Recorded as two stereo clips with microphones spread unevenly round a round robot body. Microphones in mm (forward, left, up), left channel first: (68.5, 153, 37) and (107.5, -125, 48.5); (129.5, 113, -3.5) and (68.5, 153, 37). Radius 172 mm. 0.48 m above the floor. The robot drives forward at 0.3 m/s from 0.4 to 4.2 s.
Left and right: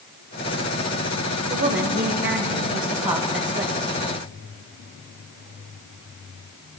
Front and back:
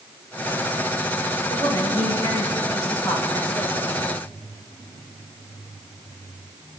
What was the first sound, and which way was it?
A woman speaking, 140° right.